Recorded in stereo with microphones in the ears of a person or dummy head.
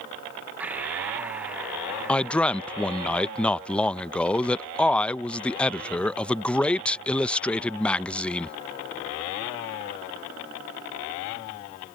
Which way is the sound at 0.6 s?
10° right (ahead or behind).